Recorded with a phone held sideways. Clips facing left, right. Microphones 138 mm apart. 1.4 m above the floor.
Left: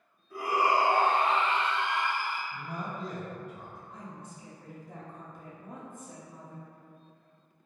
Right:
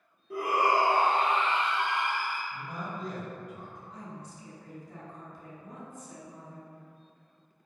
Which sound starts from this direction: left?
A woman speaking, at 3.9 s.